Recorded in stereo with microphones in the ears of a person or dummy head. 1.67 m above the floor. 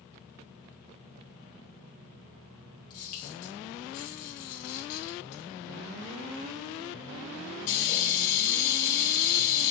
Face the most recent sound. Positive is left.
turn(degrees=40)  # may be behind; listen again after turning